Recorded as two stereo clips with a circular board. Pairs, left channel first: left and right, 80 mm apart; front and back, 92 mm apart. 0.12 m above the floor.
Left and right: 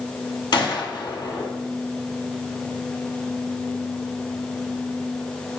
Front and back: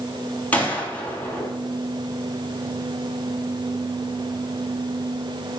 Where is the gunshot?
70° left, 0.8 m.